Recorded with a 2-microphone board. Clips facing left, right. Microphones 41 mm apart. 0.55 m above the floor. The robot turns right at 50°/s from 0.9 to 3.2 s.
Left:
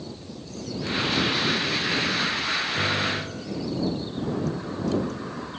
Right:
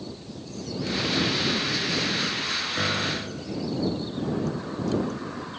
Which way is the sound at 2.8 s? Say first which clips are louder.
Left 2 dB; 10° right (ahead or behind).